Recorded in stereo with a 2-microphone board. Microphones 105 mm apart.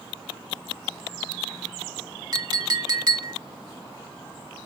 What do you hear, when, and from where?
2.3 s a clink: 40° right (ahead or behind), 0.8 m